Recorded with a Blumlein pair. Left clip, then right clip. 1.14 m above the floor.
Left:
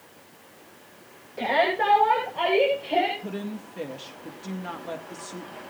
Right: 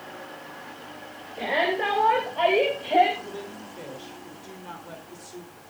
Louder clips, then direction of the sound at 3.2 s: Left 1 dB; 30° left.